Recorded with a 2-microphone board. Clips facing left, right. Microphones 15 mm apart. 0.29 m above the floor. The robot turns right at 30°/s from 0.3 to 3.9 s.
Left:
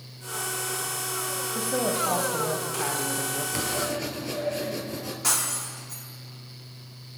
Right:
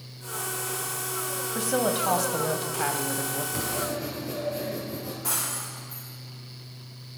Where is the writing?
35° left (ahead or behind), 2.5 m; by 5.1 s 50° left (ahead or behind), 2.5 m.